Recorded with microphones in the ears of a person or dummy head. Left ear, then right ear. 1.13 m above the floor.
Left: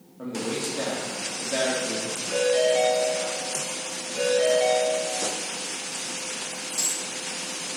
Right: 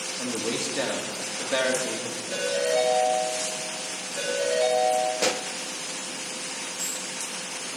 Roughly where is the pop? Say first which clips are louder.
Right 3 dB; right.